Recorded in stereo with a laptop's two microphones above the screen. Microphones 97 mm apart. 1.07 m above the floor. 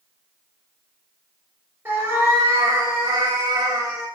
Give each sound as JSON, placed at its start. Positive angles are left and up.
{"t": 1.9, "sound": "a cat meowing", "side_deg": -20, "distance_m": 0.9}